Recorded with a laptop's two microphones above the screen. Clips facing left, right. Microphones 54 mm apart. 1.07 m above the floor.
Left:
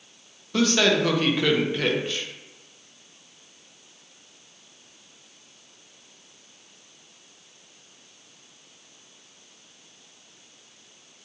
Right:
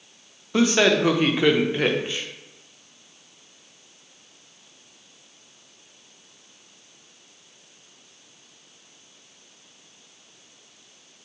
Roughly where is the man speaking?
Centre.